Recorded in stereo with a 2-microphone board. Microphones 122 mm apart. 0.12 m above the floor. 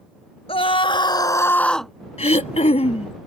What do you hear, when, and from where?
0.5 s a scream: 50° left (ahead or behind); by 1.9 s centre (ahead or behind)
2.2 s throat clearing: 60° left (ahead or behind)